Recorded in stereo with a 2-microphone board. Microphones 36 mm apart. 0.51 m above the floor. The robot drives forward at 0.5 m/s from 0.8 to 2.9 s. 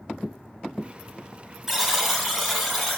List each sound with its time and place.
1.7 s a buzzer: 5° right (ahead or behind), 1.1 m